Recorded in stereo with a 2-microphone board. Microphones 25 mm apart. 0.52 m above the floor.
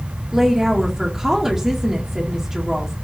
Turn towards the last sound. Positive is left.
turn(degrees=-15)  # may be behind; listen again after turning